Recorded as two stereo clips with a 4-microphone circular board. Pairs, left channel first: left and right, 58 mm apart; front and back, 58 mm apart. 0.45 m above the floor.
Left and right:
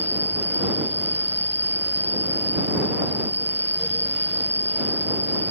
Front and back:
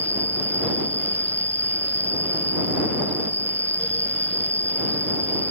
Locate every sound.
0.0 s an insect: 140° right